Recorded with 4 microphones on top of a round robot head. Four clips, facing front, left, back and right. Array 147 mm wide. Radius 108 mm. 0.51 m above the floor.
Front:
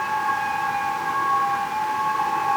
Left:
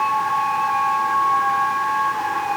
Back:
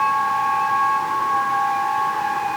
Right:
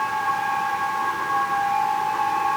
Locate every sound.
Only background noise.